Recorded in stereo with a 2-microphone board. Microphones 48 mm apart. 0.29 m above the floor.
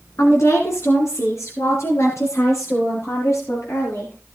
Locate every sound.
0.2 s a woman speaking: 70° left (ahead or behind), 3.5 m; by 4.1 s 75° left (ahead or behind), 7 m